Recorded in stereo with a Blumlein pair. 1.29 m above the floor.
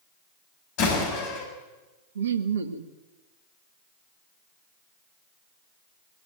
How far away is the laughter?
About 1.8 m.